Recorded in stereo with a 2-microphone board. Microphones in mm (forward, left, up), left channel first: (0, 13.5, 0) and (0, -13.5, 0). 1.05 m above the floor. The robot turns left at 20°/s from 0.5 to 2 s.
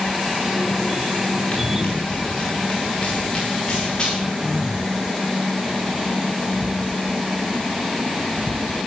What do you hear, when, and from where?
1.5 s running footsteps: 45° left (ahead or behind), 4.5 m; by 4.1 s 25° left (ahead or behind), 7 m
4.2 s throat clearing: 5° right (ahead or behind), 1.6 m